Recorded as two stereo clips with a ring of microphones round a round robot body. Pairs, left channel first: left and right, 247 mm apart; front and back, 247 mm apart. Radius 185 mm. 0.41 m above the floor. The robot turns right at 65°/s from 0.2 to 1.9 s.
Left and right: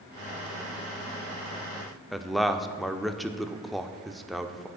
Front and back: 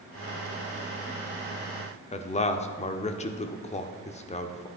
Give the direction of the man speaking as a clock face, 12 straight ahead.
12 o'clock.